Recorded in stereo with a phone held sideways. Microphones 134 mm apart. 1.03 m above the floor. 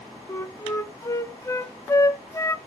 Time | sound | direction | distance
0.3 | a flute | 20° left (ahead or behind) | 0.6 m